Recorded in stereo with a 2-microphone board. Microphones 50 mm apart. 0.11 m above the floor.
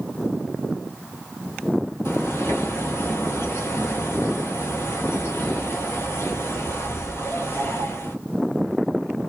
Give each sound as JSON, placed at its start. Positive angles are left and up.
{"t": 2.0, "sound": "a bird", "side_deg": 50, "distance_m": 0.7}